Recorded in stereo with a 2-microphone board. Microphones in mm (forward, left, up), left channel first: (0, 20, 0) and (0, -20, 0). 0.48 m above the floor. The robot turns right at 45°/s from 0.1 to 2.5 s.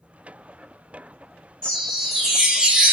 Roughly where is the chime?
Behind.